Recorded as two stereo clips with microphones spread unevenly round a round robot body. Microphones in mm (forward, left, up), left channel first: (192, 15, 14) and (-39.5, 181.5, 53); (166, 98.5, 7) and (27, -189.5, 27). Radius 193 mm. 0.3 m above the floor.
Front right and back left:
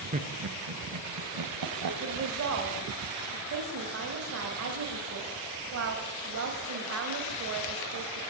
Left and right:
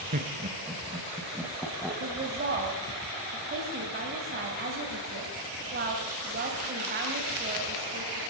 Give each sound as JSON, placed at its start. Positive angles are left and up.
{"t": 0.1, "sound": "laughter", "azimuth_deg": -155, "distance_m": 1.0}
{"t": 2.0, "sound": "a woman speaking", "azimuth_deg": -175, "distance_m": 2.5}